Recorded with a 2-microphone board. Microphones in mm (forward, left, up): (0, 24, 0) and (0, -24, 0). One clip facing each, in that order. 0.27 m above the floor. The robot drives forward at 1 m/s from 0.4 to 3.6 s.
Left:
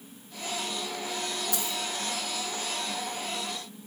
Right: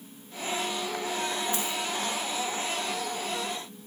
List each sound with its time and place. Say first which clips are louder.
1.5 s a dropped coin: right 2 dB; 80° left, 4.5 m